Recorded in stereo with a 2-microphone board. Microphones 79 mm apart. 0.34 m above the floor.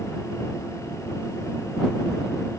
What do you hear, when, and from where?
Only background noise.